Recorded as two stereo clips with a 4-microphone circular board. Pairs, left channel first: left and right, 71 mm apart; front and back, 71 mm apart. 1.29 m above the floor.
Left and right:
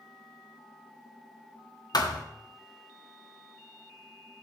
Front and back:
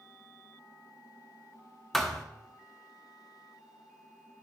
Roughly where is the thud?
Left.